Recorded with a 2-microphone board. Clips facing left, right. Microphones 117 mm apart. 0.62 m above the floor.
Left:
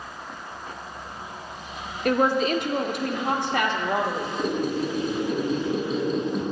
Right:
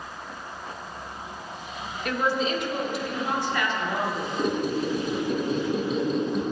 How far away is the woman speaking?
About 0.9 m.